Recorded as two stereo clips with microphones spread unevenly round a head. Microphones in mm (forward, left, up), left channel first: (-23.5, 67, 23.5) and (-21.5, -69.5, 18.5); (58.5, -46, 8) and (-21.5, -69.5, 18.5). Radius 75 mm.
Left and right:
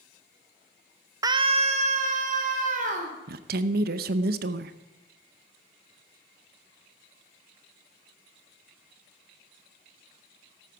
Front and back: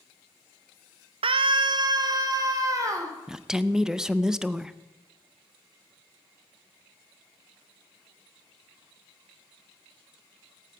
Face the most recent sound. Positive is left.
turn(degrees=-80)